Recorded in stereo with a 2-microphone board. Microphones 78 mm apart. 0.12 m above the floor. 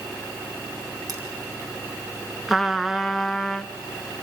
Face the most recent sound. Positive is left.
turn(degrees=0)  # may be behind; listen again after turning